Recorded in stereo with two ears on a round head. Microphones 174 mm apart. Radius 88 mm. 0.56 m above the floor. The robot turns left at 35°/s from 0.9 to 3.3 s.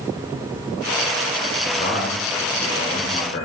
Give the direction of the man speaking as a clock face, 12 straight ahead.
7 o'clock.